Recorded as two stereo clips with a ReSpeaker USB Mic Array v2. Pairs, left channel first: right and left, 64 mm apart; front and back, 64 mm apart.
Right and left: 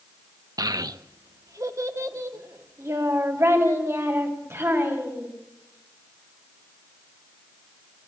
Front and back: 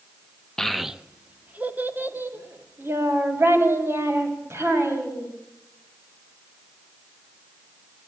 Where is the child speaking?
80° left, 0.8 m; by 5.3 s 140° left, 5.5 m.